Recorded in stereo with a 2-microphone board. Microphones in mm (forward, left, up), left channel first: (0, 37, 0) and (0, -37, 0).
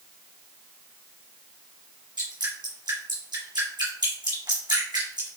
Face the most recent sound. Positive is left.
turn(degrees=-80)